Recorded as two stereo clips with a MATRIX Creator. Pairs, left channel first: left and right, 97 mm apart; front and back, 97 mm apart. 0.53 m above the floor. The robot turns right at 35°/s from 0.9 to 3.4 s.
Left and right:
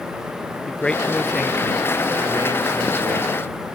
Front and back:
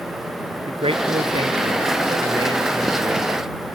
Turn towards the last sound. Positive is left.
turn(degrees=-105)